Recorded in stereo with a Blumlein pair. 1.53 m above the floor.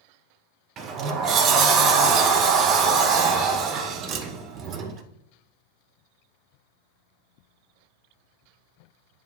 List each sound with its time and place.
0.8 s a sliding door: 30° right, 0.5 m